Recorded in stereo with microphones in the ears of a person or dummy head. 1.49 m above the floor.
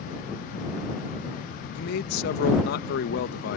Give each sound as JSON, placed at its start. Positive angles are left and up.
{"t": 1.8, "sound": "a man speaking", "side_deg": 65}